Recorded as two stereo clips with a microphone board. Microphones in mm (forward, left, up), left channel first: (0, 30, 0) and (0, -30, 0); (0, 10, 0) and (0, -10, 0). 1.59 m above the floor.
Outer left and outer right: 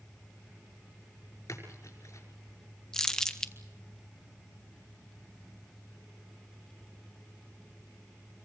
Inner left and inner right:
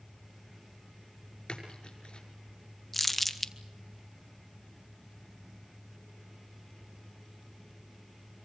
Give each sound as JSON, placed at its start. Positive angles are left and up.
{"t": 1.5, "sound": "a splash", "side_deg": 55, "distance_m": 5.5}
{"t": 2.9, "sound": "crumpling", "side_deg": 10, "distance_m": 1.1}